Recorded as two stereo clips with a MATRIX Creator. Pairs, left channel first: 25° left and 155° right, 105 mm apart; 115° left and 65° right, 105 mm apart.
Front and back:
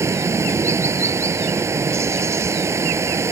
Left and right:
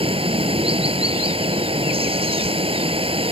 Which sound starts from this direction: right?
Running water, at 0.0 s.